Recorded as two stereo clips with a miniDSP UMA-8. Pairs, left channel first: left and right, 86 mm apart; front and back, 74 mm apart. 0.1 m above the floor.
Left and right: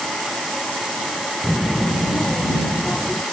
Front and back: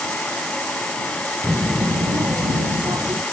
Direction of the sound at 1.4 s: 170° right.